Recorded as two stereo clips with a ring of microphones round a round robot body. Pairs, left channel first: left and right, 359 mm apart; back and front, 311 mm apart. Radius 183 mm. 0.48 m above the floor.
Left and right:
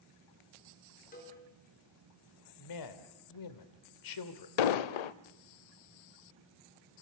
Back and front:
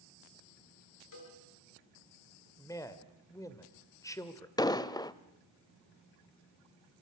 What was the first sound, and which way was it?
A cowbell, 160° left.